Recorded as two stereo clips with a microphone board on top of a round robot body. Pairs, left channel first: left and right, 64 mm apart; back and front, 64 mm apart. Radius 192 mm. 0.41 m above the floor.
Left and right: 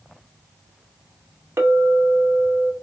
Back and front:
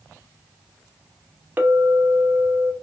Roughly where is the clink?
Ahead right.